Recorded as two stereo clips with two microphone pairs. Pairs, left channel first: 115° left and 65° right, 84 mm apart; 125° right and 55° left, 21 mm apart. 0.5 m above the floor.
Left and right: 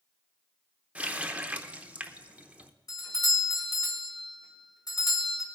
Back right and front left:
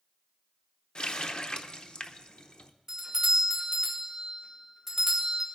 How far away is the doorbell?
About 2 m.